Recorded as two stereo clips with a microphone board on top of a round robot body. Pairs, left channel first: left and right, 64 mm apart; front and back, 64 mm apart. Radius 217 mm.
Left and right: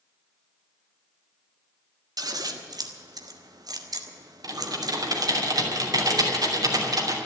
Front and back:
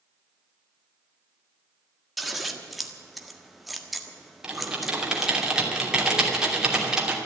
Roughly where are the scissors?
Right.